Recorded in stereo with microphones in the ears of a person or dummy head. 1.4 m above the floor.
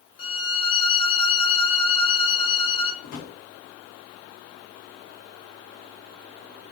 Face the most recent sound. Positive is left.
turn(degrees=55)  # may be behind; listen again after turning